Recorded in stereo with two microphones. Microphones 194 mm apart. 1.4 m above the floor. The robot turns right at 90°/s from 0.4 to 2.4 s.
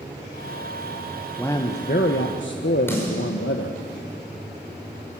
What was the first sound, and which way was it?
A man speaking, 5° left.